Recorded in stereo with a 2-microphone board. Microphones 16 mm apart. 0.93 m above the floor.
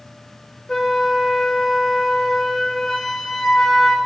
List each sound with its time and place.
0.7 s a flute: 30° left (ahead or behind), 0.8 m